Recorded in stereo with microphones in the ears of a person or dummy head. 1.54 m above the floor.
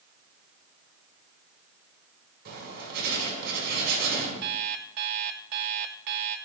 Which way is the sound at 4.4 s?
55° right (ahead or behind).